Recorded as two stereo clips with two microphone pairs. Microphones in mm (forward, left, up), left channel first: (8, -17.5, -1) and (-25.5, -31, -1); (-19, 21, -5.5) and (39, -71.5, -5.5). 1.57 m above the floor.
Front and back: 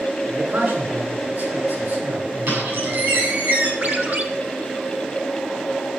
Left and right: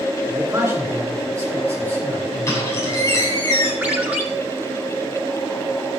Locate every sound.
0.3 s a man speaking: 120° right, 4.5 m
2.5 s a squeak: 175° right, 7 m
3.8 s a ringtone: 130° right, 2.5 m